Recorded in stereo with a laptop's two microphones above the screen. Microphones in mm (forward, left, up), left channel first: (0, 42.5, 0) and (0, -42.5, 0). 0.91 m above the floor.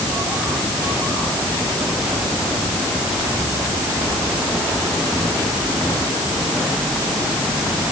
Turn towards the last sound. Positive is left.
No sound to turn to.